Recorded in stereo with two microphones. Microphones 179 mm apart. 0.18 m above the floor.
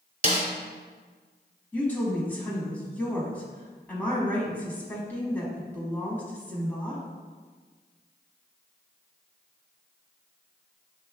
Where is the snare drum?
45° right (ahead or behind), 0.8 m.